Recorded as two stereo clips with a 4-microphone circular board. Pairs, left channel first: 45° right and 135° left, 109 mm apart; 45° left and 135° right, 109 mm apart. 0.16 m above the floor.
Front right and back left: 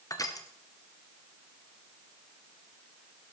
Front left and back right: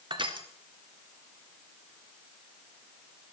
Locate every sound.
0.1 s crushing: 100° right, 1.0 m